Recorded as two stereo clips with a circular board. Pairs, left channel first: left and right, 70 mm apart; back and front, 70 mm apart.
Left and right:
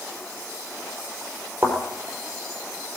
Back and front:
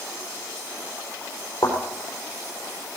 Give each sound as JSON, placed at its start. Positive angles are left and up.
{"t": 1.6, "sound": "a thud", "azimuth_deg": -150, "distance_m": 4.0}